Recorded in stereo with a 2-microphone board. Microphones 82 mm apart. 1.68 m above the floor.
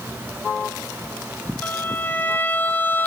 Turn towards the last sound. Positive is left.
turn(degrees=15)  # may be behind; listen again after turning